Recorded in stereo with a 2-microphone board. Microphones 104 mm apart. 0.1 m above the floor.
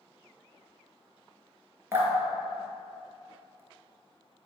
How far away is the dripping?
About 0.6 m.